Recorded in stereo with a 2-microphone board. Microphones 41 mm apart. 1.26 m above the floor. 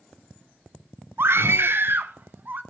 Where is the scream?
70° right (ahead or behind), 0.5 m; by 2.6 s 55° right (ahead or behind), 1.7 m.